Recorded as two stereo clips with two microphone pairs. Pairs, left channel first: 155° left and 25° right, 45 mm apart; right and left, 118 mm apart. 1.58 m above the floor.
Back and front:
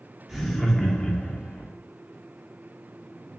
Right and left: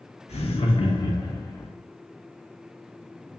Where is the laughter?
115° right, 1.0 m; by 1.7 s 160° right, 1.0 m.